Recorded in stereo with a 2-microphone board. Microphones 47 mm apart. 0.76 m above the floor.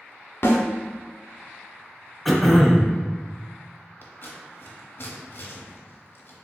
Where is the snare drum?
55° left (ahead or behind), 1.1 m.